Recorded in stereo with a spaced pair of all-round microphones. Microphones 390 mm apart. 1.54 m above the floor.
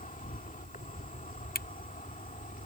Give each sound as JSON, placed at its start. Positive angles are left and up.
{"t": 0.0, "sound": "an insect", "side_deg": 20}
{"t": 1.6, "sound": "a camera shutter", "side_deg": 25}